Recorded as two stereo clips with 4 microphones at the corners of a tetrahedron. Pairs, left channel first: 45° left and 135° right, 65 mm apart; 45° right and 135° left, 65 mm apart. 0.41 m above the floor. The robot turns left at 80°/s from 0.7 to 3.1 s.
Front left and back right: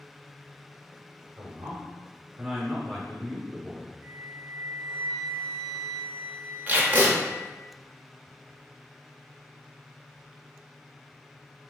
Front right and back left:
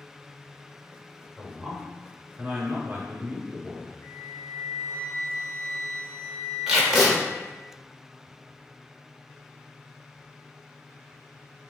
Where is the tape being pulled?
145° right, 0.7 m.